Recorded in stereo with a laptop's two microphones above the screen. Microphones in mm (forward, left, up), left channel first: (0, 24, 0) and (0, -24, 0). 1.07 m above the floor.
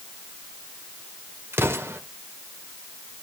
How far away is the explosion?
About 2 m.